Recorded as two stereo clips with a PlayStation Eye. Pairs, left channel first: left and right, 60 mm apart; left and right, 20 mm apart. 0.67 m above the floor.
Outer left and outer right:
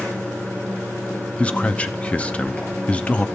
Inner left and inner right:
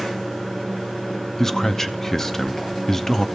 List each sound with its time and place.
0.0 s running water: 30° left (ahead or behind), 4 m
1.4 s a man speaking: 20° left (ahead or behind), 0.5 m